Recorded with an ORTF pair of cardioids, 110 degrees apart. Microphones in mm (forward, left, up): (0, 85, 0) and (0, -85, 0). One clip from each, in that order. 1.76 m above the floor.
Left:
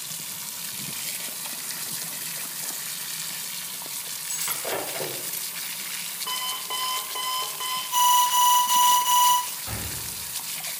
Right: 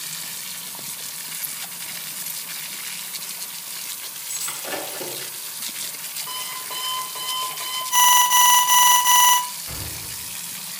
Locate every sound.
4.3 s breaking glass: 25° left, 3.5 m
6.3 s an alarm clock: 45° left, 3.5 m
7.9 s an alarm: 30° right, 0.9 m
9.7 s an explosion: 55° left, 4 m